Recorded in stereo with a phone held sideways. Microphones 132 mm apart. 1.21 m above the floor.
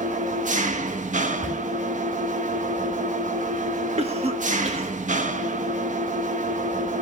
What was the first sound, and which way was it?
An engine running, 70° right (ahead or behind).